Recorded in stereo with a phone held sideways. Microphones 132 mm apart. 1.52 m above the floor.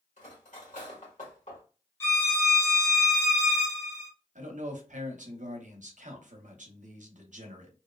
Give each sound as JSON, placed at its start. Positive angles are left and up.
{"t": 0.2, "sound": "cutlery clinking", "side_deg": 70, "distance_m": 1.6}
{"t": 2.0, "sound": "a violin", "side_deg": 20, "distance_m": 1.0}
{"t": 4.3, "sound": "a man speaking", "side_deg": -70, "distance_m": 0.8}